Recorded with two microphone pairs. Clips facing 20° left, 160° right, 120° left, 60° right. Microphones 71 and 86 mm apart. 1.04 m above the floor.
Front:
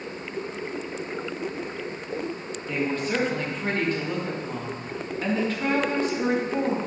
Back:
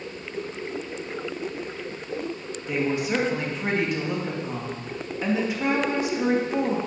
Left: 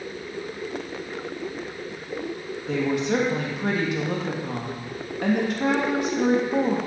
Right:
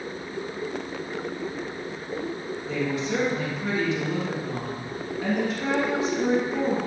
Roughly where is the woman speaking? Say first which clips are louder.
Back 2 dB, left 4 dB; behind left.